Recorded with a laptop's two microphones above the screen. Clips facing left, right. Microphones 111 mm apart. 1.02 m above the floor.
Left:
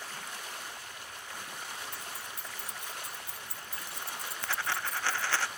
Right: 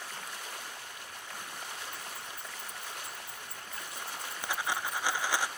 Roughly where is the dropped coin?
Centre.